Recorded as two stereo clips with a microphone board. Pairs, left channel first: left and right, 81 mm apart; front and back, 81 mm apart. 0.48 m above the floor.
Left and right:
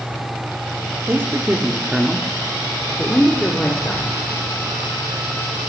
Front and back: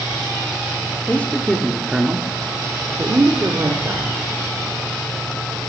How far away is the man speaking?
About 1.4 m.